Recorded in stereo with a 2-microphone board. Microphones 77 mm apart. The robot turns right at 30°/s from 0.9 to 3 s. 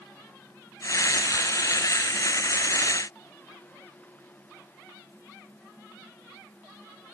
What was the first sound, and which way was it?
Only background noise.